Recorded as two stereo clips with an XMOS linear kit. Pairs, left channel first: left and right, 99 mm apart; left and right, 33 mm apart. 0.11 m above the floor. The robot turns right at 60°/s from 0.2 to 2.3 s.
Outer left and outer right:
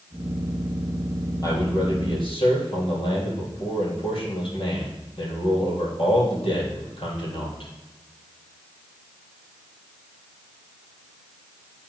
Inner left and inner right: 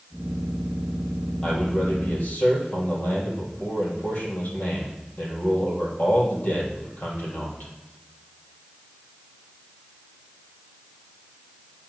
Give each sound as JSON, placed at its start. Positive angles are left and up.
{"t": 1.4, "sound": "a man speaking", "azimuth_deg": 40, "distance_m": 3.5}